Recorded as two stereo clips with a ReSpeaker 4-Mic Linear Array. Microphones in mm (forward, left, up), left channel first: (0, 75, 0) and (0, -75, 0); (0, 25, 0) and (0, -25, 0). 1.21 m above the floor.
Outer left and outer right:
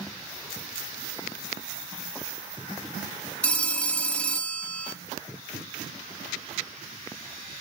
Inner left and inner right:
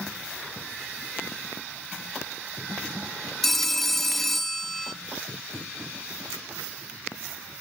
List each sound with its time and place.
3.4 s a phone ringing: 10° left (ahead or behind), 1.0 m